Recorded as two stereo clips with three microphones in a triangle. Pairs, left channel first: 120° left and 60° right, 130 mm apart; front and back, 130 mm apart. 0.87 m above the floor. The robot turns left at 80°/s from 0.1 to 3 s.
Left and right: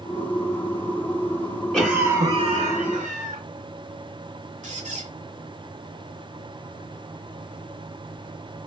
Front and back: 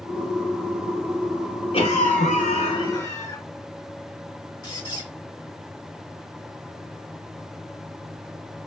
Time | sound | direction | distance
1.7 | a cough | 30° left | 2 m
4.6 | a squeak | 55° right | 1.2 m